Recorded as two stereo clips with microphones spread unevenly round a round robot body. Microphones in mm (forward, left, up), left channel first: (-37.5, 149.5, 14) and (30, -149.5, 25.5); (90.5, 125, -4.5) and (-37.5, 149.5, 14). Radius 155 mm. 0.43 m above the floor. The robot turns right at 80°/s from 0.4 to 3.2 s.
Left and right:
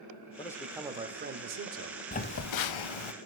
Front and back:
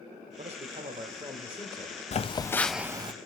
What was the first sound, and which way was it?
A man speaking, 170° left.